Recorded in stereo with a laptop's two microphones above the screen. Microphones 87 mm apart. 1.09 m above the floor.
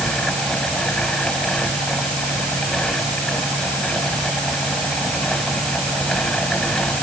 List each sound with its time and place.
0.0 s a fan: 10° left (ahead or behind)